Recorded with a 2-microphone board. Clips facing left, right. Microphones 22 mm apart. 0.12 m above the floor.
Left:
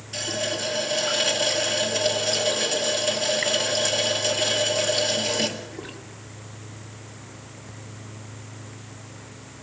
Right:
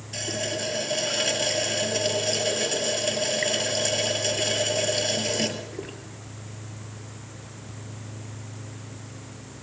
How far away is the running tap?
About 1.7 m.